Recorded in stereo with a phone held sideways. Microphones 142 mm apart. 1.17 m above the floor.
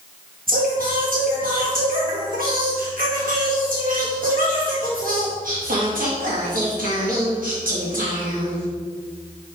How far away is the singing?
About 1.6 m.